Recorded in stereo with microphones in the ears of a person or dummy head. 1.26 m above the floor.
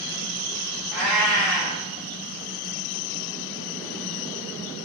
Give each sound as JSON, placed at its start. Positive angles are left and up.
{"t": 0.9, "sound": "a cat meowing", "side_deg": -5, "distance_m": 0.9}